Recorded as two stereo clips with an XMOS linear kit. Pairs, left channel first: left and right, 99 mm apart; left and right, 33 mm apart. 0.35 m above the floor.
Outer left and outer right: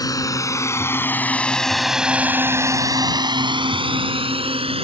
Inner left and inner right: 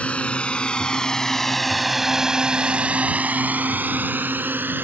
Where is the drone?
40° left (ahead or behind); by 4.8 s 70° right (ahead or behind).